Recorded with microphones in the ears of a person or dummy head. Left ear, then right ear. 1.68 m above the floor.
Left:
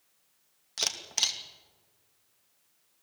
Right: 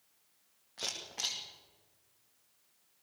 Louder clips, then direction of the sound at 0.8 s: Left 8 dB; 85° left.